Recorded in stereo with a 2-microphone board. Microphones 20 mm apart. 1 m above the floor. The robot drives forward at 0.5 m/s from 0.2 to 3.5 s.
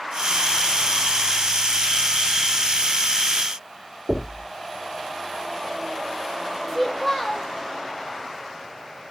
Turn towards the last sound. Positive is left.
turn(degrees=-10)  # may be behind; listen again after turning